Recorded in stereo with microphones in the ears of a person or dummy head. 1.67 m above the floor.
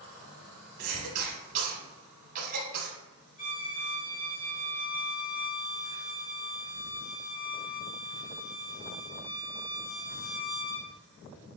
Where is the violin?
40° left (ahead or behind), 1.0 m.